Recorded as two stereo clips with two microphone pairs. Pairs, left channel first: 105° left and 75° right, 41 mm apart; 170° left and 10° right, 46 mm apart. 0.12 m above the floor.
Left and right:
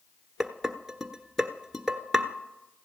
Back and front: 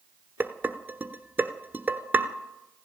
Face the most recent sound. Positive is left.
turn(degrees=10)